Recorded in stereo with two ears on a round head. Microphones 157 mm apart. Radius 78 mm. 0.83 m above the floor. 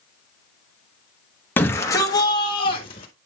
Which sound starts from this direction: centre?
A shout, at 1.6 s.